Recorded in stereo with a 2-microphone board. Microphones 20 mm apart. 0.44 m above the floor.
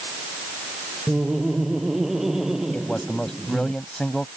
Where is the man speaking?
50° left (ahead or behind).